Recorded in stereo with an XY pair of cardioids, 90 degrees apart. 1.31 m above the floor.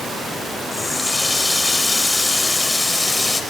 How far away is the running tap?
About 4.5 m.